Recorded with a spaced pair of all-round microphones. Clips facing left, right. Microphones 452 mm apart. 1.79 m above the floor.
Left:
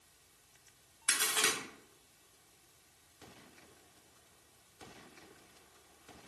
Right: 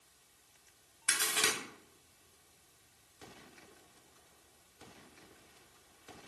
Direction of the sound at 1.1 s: 40° right (ahead or behind).